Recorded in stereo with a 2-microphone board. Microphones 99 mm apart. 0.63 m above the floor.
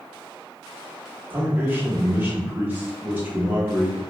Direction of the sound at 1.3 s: 20° right (ahead or behind).